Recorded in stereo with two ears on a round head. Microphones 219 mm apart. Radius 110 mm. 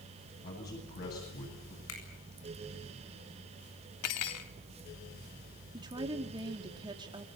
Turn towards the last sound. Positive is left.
turn(degrees=-20)  # may be behind; listen again after turning